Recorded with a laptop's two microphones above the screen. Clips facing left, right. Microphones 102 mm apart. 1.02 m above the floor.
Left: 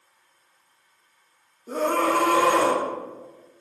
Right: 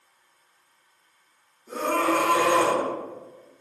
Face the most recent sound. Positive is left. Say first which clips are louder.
# left 2 dB
turn(degrees=45)  # may be behind; listen again after turning